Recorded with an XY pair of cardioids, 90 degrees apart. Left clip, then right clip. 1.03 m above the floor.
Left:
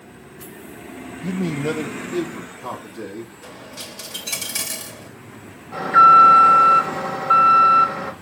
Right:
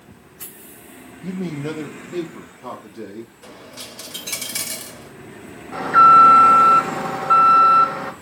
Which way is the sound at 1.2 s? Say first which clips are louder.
Left 4 dB; 30° left.